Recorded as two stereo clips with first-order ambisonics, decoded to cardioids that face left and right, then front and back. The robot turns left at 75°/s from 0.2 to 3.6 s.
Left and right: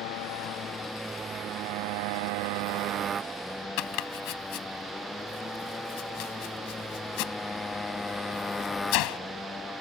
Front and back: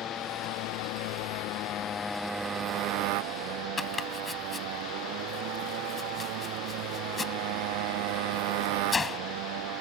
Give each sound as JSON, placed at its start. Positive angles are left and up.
{"t": 0.0, "sound": "a motorcycle", "azimuth_deg": 65}
{"t": 3.8, "sound": "chopping", "azimuth_deg": 75}